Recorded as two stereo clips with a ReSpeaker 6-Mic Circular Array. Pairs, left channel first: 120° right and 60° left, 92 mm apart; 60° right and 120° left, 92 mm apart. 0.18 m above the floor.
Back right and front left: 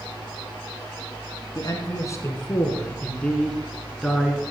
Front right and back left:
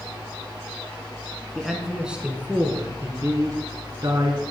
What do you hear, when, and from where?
1.6 s a man speaking: 150° right, 1.6 m; by 4.4 s 145° left, 1.9 m